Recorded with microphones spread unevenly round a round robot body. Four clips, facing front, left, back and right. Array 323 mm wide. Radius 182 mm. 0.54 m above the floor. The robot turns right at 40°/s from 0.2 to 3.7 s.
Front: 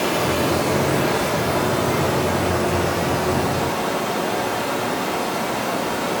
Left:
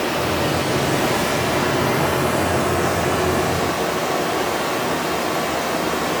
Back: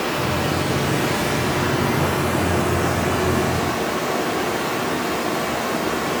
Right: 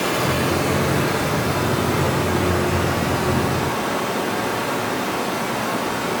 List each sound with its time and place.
0.0 s running water: 25° left, 0.7 m; by 6.2 s 165° left, 0.7 m